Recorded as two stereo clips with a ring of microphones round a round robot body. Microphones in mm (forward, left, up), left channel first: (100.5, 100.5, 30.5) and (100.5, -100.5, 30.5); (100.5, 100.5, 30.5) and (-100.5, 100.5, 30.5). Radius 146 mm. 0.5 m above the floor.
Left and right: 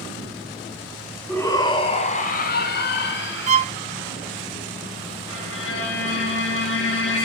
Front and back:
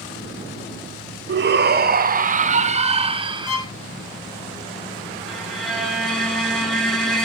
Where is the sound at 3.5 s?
35° right, 1.3 m.